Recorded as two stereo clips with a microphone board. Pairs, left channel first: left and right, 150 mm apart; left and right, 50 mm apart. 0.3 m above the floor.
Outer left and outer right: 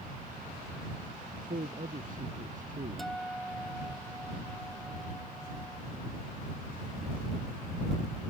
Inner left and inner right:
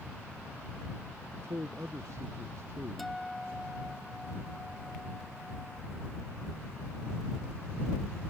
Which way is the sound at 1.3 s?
65° right (ahead or behind).